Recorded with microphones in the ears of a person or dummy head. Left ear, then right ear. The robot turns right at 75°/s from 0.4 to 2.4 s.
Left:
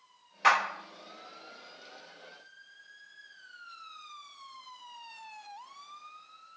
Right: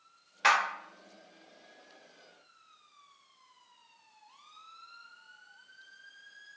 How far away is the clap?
About 0.9 m.